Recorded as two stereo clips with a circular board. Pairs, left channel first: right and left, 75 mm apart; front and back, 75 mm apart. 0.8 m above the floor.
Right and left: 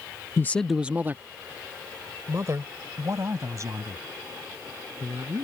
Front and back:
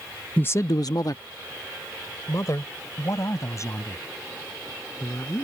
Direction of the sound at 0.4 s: 65° right.